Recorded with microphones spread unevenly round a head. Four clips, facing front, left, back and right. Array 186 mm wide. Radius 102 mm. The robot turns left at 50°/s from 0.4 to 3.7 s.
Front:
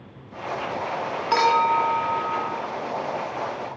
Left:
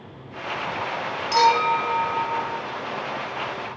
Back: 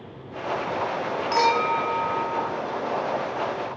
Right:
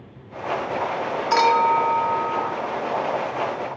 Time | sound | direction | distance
1.3 | a clink | 20° right | 2 m